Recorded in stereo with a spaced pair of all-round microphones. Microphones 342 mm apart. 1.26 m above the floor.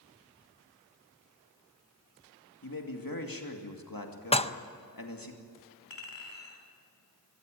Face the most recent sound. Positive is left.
turn(degrees=70)  # may be behind; listen again after turning